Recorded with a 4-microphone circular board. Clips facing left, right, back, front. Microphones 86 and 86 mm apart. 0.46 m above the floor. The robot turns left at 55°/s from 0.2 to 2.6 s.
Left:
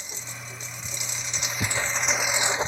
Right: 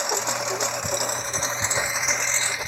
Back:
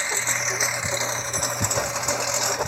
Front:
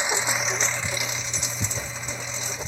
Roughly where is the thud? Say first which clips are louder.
Even, back 8 dB; behind left.